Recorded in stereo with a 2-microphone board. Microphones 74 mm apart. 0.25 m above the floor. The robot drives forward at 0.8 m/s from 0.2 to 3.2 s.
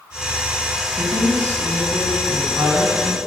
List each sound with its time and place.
1.0 s a woman speaking: 50° right (ahead or behind), 1.7 m; by 3.2 s 30° right (ahead or behind), 2.5 m